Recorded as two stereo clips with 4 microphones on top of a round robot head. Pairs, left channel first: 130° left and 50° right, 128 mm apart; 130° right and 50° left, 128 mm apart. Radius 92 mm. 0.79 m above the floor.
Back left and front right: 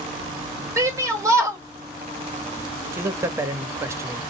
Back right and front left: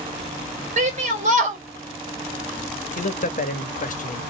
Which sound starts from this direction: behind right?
A man speaking, at 2.9 s.